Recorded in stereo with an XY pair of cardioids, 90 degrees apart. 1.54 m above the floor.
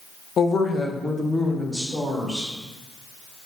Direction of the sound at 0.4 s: 50° left.